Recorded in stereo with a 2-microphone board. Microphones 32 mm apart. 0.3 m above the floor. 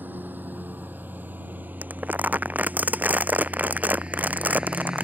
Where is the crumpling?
60° right (ahead or behind).